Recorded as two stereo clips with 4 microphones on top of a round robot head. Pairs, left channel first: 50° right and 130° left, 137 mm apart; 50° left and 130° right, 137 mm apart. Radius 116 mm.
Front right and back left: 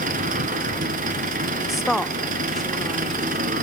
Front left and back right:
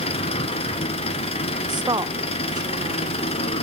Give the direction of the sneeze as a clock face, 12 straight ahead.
I don't hear a sneeze.